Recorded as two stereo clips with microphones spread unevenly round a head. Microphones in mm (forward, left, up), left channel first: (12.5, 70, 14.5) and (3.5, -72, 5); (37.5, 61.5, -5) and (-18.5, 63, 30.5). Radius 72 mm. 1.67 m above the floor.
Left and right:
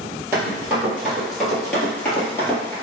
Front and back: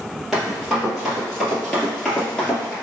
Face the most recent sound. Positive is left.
turn(degrees=115)